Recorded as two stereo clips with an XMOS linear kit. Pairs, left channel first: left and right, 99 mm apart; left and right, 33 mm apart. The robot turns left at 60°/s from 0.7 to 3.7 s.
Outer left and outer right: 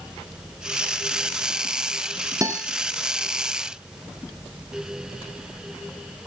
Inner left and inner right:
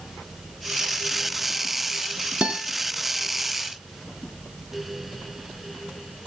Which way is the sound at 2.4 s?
35° right (ahead or behind).